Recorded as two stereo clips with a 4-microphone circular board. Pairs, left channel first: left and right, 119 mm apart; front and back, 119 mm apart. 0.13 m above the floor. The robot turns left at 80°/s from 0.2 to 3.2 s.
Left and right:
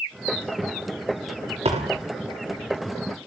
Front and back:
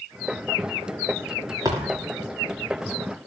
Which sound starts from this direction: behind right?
A thud, at 1.6 s.